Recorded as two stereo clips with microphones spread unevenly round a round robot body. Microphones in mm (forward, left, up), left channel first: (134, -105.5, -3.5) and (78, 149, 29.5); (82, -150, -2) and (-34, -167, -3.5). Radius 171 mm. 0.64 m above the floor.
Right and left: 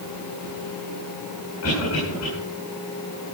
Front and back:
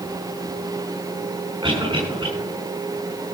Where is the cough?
130° right, 7 m.